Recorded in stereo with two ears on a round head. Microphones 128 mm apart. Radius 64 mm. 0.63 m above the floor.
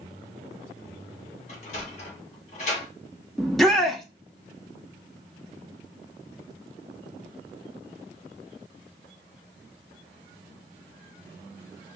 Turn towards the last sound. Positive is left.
turn(degrees=0)  # may be behind; listen again after turning